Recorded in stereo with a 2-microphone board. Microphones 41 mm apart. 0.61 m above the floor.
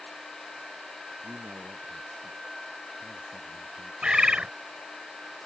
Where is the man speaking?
80° right.